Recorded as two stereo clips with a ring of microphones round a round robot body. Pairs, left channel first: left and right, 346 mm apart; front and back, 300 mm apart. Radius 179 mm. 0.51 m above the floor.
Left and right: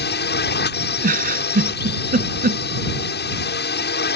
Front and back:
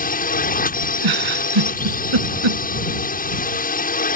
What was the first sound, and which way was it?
A drone, 45° left.